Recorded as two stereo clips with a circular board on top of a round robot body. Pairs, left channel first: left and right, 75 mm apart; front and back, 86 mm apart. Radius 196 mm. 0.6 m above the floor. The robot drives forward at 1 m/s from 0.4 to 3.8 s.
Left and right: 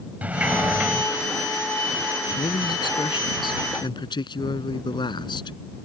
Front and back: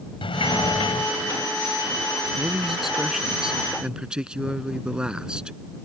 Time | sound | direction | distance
0.2 | a sliding door | 20° right | ?
2.4 | a man speaking | 90° left | ?